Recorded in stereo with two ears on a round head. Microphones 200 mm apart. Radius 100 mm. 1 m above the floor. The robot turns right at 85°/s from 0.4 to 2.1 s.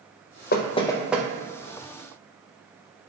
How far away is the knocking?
About 0.6 m.